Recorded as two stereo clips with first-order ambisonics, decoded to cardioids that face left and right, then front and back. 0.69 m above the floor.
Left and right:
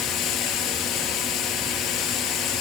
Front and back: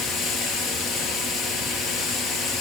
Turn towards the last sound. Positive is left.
turn(degrees=50)